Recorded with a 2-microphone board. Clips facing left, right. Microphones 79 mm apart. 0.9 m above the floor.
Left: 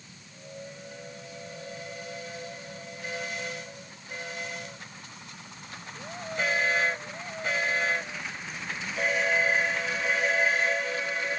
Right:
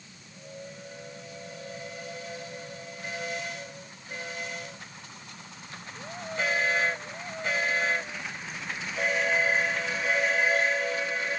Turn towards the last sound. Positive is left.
No sound to turn to.